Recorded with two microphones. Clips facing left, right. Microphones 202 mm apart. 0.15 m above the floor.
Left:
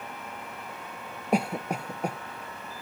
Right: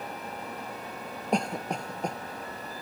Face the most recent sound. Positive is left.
turn(degrees=5)  # may be behind; listen again after turning